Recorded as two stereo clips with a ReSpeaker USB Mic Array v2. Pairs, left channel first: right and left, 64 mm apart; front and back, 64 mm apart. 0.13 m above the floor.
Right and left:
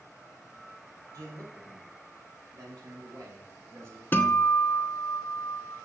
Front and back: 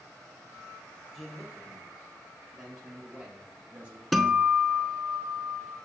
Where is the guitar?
90° right, 0.7 m.